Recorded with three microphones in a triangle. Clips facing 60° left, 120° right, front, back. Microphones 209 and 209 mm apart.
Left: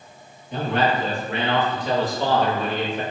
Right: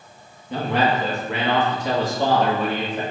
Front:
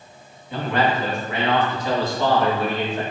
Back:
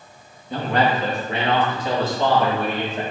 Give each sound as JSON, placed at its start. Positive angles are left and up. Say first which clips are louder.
{"t": 0.5, "sound": "a man speaking", "louder": "right 1 dB, back 1 dB", "azimuth_deg": -130, "distance_m": 2.5}